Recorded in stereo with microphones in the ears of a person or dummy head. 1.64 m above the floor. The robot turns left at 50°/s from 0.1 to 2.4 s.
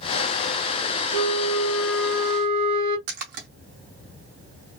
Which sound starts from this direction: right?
A splash, at 3.1 s.